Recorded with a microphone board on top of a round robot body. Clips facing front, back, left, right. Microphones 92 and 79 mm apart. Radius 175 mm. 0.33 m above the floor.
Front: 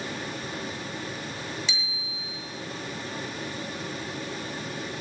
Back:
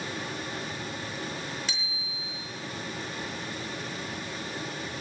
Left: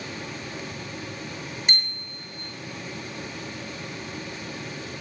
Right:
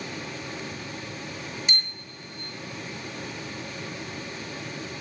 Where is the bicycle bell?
135° left, 7 m.